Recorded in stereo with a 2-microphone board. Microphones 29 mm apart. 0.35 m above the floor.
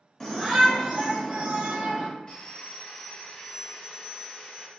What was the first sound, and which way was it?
A shout, 20° left (ahead or behind).